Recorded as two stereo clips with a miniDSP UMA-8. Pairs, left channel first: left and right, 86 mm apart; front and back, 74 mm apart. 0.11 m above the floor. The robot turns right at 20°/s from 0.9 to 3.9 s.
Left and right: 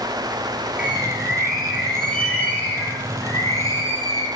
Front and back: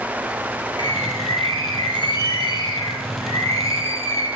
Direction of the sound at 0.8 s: 15° right.